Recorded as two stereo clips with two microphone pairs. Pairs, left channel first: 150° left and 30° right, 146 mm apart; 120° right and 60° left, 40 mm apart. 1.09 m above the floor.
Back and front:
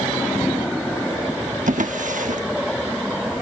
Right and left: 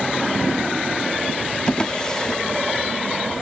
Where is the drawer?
50° right.